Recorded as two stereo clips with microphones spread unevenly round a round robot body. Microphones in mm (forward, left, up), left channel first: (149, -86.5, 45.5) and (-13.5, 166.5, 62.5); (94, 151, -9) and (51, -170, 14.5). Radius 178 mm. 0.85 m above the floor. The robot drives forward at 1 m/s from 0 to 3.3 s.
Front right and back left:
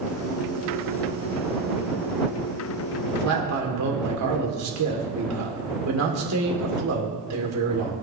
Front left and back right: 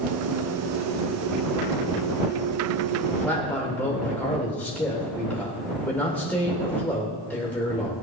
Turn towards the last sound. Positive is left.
turn(degrees=170)